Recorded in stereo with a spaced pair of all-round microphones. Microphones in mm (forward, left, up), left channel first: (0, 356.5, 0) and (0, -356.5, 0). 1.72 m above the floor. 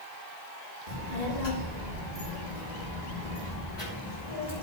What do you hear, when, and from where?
0.9 s a child speaking: 70° left (ahead or behind), 2.0 m; by 4.6 s 65° left (ahead or behind), 3.5 m